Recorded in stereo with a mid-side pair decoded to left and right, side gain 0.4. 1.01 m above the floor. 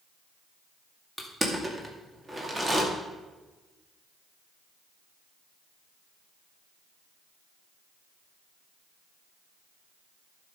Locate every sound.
1.2 s crushing: 20° right, 2.5 m